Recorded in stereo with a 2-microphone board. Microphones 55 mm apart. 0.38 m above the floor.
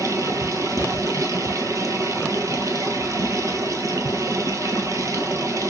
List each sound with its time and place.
0.0 s running water: 75° right (ahead or behind), 1.3 m